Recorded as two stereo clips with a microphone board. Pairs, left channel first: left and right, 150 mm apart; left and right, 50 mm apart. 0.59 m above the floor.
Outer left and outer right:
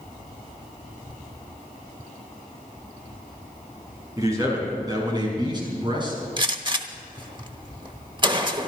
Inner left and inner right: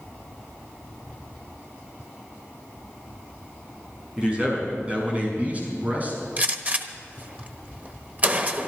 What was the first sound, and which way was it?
A man speaking, 20° right (ahead or behind).